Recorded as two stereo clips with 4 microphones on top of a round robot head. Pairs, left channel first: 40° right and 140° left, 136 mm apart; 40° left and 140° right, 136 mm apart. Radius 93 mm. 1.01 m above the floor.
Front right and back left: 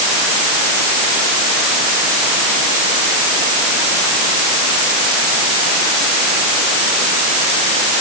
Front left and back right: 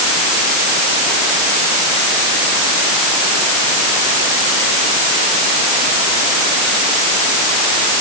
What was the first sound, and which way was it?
Only background noise.